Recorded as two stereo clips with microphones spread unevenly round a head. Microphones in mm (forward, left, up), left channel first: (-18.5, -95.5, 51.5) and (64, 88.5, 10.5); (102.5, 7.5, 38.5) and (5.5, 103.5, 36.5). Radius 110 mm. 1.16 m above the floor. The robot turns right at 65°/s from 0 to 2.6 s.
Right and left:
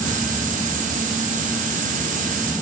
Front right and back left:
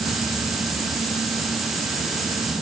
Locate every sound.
Only background noise.